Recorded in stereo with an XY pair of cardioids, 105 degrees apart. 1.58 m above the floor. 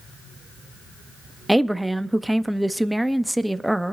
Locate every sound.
1.5 s a woman speaking: 5° right, 0.6 m